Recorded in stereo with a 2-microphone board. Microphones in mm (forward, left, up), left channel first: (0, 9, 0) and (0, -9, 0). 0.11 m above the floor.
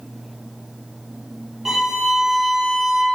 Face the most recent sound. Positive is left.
turn(degrees=-20)  # may be behind; listen again after turning